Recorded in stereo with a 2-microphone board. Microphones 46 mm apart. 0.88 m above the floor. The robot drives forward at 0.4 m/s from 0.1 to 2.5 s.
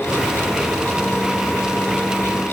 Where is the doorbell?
I don't hear a doorbell.